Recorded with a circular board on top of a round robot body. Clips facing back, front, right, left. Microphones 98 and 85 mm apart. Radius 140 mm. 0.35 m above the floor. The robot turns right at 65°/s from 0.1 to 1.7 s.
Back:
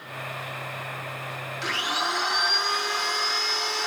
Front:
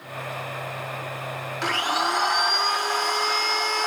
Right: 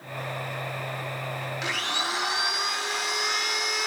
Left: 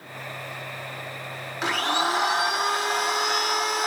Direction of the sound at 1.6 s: 40° left.